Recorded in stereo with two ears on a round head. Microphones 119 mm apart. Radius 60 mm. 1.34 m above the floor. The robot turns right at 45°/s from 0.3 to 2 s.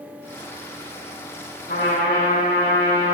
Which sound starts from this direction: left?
A trumpet, at 1.7 s.